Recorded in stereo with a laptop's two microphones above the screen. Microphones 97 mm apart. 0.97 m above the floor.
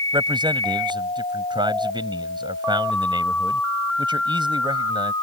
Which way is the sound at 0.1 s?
50° right (ahead or behind).